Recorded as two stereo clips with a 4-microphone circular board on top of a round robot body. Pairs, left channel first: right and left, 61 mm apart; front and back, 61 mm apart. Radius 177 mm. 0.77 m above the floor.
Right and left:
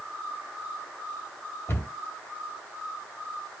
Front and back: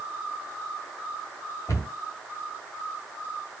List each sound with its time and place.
1.7 s a cupboard door: 35° right, 1.8 m